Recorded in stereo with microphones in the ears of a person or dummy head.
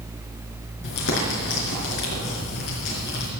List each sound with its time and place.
0.8 s crumpling: 60° left (ahead or behind), 5 m